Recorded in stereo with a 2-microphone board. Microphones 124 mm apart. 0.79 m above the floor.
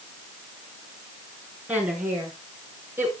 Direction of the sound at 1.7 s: 10° right (ahead or behind).